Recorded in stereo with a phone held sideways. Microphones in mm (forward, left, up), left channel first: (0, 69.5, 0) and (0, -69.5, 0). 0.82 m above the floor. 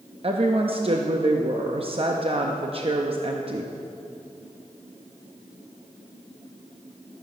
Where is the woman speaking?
45° right (ahead or behind), 0.7 m.